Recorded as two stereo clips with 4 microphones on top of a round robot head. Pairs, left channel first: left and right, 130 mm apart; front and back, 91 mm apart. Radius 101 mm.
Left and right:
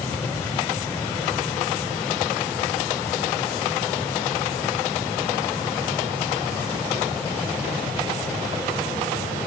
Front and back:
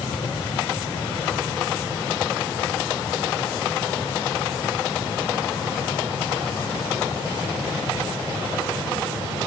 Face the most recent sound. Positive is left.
No sound to turn to.